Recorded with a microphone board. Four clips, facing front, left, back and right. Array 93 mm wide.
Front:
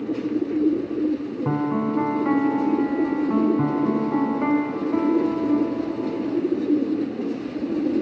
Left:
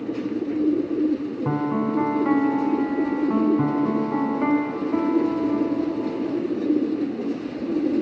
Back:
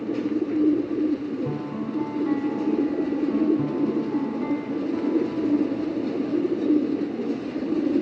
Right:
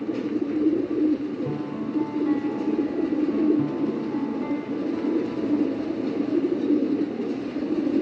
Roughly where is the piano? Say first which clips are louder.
Left 6 dB, front 6 dB; ahead left.